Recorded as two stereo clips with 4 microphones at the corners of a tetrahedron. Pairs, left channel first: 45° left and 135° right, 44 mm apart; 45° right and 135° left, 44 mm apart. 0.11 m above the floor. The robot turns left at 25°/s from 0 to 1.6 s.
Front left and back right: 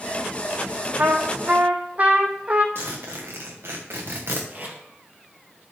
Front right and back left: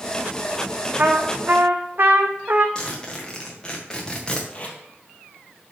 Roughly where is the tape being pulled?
Right.